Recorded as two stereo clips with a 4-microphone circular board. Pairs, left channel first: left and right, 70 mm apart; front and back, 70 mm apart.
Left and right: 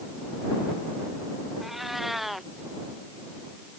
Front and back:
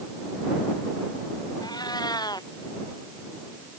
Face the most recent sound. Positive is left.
turn(degrees=-5)